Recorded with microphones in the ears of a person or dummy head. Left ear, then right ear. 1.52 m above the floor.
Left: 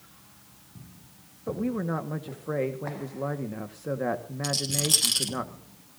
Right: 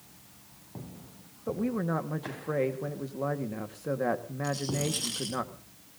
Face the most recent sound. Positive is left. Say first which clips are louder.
# left 5 dB
turn(degrees=60)  # may be behind; listen again after turning